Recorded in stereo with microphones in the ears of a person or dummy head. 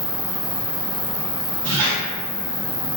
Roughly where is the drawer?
No drawer in this recording.